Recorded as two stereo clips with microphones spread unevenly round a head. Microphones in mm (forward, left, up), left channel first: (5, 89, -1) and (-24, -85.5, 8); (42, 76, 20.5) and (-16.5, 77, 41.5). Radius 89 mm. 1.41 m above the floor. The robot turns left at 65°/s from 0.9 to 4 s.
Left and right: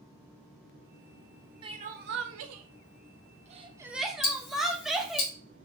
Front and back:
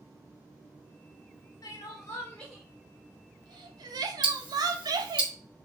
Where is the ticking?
110° left, 1.3 m.